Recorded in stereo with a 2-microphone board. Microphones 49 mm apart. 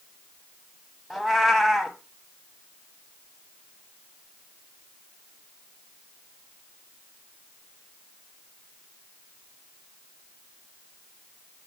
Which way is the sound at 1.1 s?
Centre (ahead or behind).